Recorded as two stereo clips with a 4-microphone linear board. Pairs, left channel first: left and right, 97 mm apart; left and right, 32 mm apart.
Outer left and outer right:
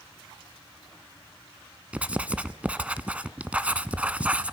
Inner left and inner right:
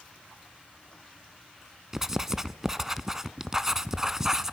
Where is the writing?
15° right (ahead or behind), 0.5 m.